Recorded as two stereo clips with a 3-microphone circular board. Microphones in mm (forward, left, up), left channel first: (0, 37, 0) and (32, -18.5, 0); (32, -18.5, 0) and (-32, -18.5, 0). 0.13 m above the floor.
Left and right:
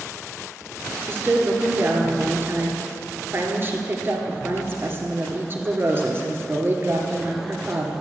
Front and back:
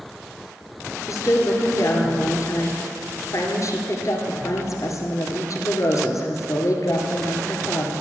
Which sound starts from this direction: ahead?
A woman speaking, at 1.1 s.